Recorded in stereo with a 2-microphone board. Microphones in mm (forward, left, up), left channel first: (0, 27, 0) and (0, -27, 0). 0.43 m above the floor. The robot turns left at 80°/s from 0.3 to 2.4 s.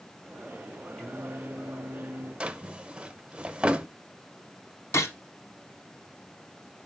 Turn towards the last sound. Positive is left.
turn(degrees=60)  # may be behind; listen again after turning